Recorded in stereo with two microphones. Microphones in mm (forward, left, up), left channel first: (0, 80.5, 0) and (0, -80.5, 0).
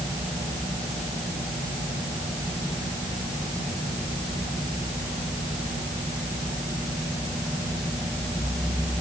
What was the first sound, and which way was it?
Only background noise.